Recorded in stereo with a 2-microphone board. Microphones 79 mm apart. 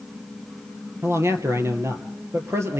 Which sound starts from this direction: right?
A man speaking, at 1.0 s.